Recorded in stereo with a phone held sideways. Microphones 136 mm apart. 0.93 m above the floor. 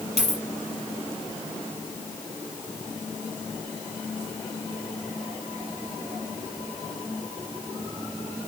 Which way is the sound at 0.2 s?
55° right (ahead or behind).